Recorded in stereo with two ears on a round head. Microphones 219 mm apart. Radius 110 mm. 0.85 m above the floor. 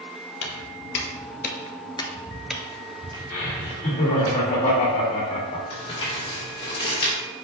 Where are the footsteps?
50° left (ahead or behind), 1.5 m; by 4.3 s 30° right (ahead or behind), 1.9 m.